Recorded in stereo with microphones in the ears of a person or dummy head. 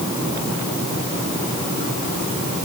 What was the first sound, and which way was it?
Only background noise.